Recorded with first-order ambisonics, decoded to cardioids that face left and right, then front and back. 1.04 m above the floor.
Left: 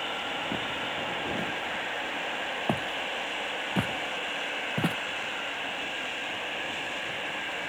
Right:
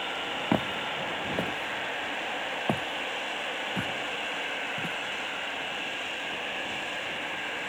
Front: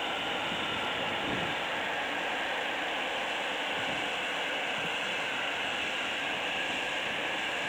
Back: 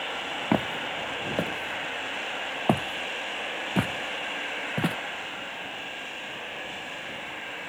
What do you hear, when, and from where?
0.5 s footsteps: 150° right; by 5.0 s 145° left